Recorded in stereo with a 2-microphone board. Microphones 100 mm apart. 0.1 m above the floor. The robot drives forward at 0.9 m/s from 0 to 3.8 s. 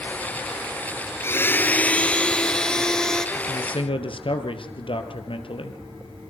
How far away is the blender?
About 0.7 m.